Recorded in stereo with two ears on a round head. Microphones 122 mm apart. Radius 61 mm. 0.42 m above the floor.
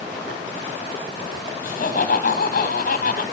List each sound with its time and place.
1.6 s laughter: 65° left (ahead or behind), 2.5 m